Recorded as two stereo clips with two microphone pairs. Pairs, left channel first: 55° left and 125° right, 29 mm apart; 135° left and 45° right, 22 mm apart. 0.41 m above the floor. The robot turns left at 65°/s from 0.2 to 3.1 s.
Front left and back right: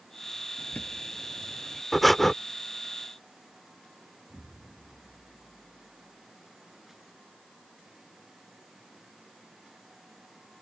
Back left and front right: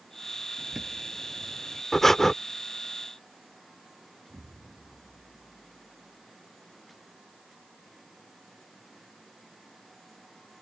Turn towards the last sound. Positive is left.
turn(degrees=-45)